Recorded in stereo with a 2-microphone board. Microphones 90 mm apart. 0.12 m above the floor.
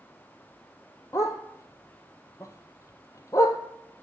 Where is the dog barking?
35° left (ahead or behind), 0.8 m.